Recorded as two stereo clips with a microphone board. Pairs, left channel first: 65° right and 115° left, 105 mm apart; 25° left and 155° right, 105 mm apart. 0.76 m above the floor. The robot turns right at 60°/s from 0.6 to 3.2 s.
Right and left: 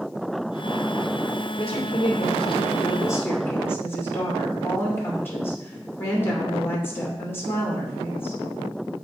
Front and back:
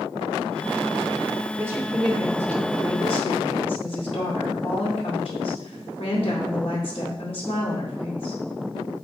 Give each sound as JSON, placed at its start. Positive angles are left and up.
{"t": 1.6, "sound": "a woman speaking", "azimuth_deg": -100, "distance_m": 2.0}